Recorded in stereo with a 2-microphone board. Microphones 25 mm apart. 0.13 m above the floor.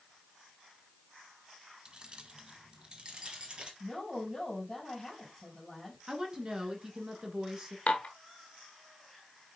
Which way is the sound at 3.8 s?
5° left (ahead or behind).